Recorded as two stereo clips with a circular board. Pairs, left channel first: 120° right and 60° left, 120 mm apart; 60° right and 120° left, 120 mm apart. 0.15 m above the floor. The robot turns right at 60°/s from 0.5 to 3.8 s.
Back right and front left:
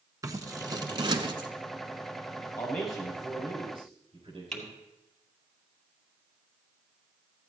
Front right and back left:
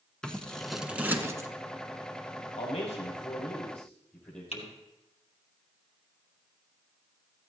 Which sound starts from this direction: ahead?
Scissors, at 0.2 s.